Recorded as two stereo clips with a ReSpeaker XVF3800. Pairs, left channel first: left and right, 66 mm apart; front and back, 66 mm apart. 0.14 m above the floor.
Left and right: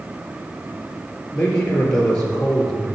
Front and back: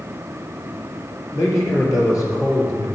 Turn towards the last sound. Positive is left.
turn(degrees=15)